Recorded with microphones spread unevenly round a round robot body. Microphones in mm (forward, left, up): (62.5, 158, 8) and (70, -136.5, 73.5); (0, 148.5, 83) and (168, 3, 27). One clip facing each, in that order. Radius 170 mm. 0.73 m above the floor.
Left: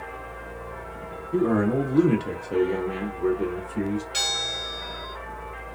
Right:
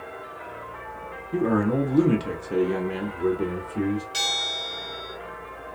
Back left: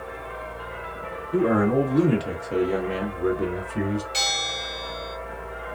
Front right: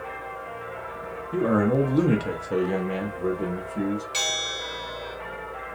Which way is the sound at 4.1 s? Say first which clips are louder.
Even, back left 1 dB; 5° right.